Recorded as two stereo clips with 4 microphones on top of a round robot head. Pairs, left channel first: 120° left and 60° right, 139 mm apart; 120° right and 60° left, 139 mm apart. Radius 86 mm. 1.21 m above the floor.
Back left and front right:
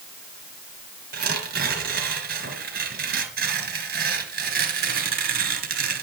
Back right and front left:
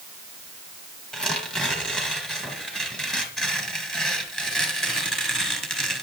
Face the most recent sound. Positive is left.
turn(degrees=-35)